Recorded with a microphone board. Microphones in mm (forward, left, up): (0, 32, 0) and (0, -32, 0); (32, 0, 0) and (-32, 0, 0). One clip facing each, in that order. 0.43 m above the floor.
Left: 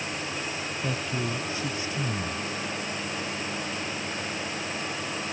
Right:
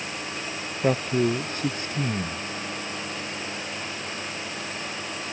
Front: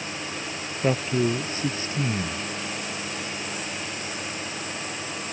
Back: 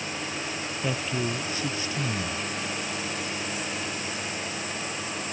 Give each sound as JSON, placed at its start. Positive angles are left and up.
{"t": 0.8, "sound": "a man speaking", "azimuth_deg": -55}